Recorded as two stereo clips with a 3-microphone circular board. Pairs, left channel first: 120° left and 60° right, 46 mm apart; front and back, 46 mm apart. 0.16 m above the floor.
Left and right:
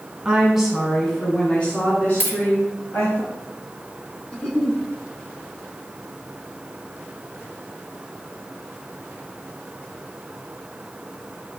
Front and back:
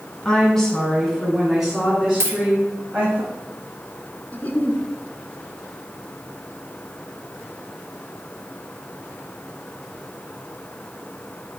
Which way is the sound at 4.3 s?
45° left.